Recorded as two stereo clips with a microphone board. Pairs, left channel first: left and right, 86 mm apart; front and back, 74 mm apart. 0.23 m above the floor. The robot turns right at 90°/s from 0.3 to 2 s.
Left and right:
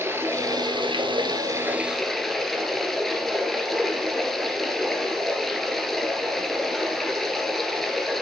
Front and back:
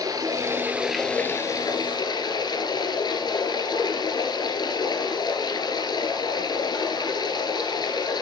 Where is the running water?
150° right, 1.8 m; by 8.2 s 5° left, 1.8 m.